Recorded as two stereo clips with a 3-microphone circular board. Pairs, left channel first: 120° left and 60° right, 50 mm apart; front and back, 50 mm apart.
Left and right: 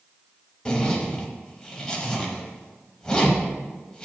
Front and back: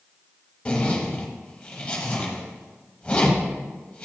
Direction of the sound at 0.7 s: 60° left.